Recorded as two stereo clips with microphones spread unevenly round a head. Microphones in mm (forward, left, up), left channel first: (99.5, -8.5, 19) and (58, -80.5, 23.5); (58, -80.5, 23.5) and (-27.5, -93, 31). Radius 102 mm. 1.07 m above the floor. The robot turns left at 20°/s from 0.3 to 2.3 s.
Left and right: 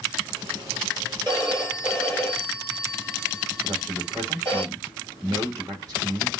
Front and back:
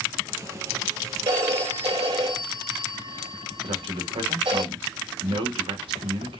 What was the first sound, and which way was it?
A phone ringing, 165° left.